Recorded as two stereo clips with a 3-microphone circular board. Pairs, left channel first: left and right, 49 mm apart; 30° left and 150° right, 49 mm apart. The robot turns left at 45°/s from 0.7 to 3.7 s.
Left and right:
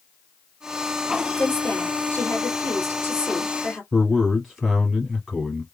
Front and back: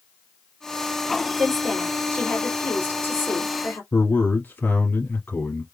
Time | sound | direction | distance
1.4 | a woman speaking | 135° left | 2.5 m
3.9 | a man speaking | straight ahead | 2.5 m